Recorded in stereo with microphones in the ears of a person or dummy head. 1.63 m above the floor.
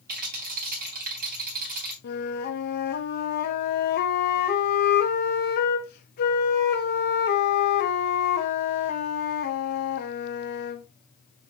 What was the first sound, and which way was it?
A rattle, 50° right (ahead or behind).